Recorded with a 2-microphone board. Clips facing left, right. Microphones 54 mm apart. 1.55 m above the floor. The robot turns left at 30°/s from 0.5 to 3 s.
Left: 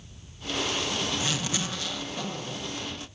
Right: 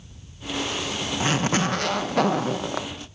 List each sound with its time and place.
1.2 s a zipper: 35° right, 1.3 m; by 2.9 s 85° right, 1.3 m